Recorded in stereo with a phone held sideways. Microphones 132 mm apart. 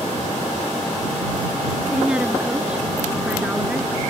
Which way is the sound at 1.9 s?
5° right (ahead or behind).